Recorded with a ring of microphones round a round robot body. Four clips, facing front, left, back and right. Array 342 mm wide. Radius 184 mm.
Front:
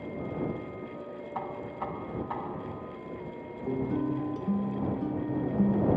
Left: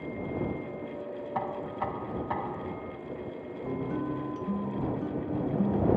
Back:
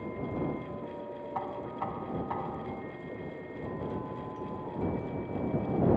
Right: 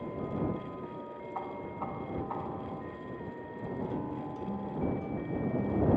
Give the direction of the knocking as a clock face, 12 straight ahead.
9 o'clock.